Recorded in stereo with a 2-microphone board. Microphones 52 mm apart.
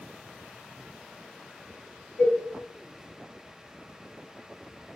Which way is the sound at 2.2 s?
35° left (ahead or behind).